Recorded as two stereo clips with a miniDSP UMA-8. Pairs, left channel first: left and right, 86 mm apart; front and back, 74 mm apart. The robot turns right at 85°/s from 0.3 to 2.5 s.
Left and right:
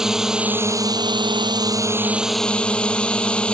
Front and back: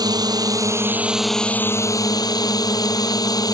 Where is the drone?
175° right; by 3.5 s 15° left.